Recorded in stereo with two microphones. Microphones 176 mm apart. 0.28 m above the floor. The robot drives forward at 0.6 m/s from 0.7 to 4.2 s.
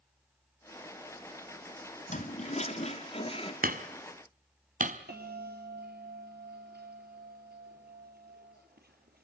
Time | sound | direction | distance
2.1 | a toilet flushing | 45° left (ahead or behind) | 1.8 m
3.6 | hammering | 55° right (ahead or behind) | 1.3 m
5.1 | a bell | 60° right (ahead or behind) | 4.5 m